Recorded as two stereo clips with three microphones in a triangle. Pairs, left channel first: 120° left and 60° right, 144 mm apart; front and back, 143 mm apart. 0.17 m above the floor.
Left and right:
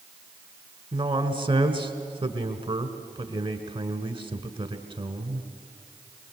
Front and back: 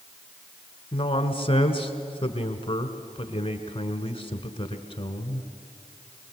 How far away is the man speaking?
About 1.7 m.